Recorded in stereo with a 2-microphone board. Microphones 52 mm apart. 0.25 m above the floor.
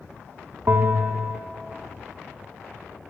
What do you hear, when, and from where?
0.7 s a bell: 55° right (ahead or behind), 0.6 m